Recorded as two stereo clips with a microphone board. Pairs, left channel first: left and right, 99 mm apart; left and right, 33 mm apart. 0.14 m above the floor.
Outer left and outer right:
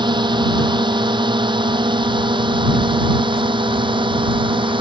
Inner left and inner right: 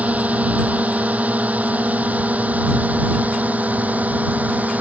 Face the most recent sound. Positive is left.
turn(degrees=-55)  # may be behind; listen again after turning